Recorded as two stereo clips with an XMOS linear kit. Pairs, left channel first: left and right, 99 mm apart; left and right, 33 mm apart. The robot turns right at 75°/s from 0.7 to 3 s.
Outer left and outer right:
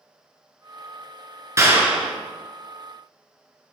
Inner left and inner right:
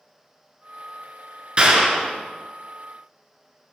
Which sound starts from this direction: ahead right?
A clap, at 1.6 s.